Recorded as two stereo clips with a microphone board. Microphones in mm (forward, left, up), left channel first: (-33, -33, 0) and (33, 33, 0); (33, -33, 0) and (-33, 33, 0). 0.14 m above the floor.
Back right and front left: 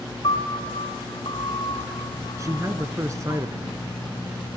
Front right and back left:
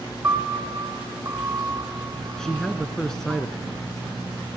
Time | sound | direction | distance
0.2 | a piano | 160° right | 5.5 m
2.4 | a man speaking | 35° left | 1.9 m